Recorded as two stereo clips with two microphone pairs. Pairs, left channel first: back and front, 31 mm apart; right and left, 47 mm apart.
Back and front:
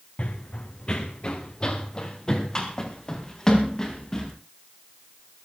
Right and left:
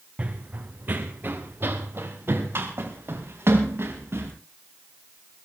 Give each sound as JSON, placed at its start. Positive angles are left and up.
{"t": 0.2, "sound": "running footsteps", "azimuth_deg": 140, "distance_m": 1.7}